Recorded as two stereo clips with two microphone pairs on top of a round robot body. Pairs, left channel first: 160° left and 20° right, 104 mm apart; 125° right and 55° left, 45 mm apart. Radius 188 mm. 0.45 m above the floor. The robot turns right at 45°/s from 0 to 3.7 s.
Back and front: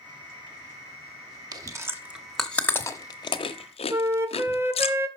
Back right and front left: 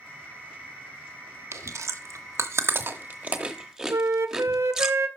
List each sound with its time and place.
1.5 s chewing: 35° left, 0.8 m; by 4.9 s 135° left, 0.8 m
3.9 s a flute: 50° left, 1.2 m